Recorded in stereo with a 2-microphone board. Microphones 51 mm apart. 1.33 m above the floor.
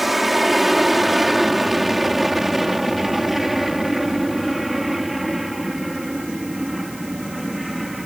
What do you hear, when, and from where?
0.0 s an aircraft: centre (ahead or behind); by 8.1 s 5° right (ahead or behind)